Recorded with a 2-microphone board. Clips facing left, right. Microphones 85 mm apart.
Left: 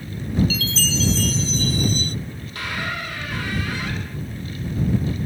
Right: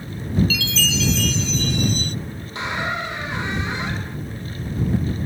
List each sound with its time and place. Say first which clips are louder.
0.5 s a chime: right 1 dB; 35° left (ahead or behind)
2.5 s a squeak: right 3 dB; 20° right (ahead or behind)